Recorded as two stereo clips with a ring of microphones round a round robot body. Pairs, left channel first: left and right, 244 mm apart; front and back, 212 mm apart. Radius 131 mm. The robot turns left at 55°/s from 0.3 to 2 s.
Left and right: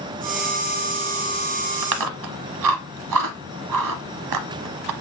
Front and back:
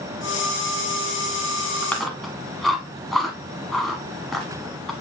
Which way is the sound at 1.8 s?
80° right.